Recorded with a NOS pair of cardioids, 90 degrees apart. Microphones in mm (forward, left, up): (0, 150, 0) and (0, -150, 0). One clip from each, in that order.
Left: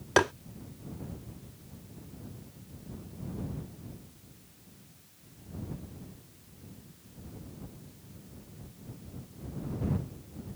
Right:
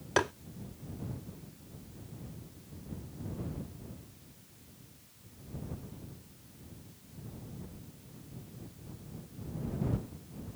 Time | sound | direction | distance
0.2 | tapping | 20° left | ?